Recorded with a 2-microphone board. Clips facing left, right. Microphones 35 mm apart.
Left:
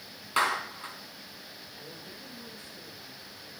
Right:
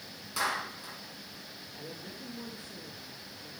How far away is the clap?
About 3.5 m.